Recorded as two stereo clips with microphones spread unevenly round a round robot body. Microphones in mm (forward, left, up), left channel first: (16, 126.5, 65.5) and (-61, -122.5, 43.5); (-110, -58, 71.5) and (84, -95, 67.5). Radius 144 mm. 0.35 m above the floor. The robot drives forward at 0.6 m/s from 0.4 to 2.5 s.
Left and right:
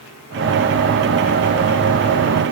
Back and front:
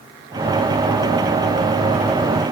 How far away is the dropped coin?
I don't hear a dropped coin.